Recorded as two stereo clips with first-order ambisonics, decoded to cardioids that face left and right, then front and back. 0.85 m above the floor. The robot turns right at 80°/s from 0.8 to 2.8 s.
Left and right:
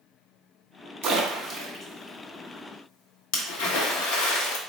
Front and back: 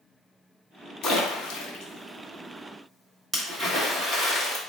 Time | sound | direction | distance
1.0 | a splash | 50° right | 0.9 m